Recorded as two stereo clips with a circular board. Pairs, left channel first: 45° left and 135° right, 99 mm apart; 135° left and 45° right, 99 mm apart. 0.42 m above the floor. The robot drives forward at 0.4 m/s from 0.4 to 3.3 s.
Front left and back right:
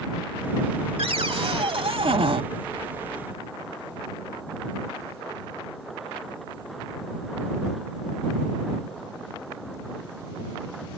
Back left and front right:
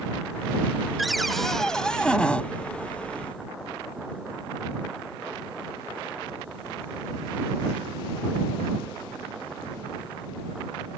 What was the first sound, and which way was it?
A cupboard door, 135° right.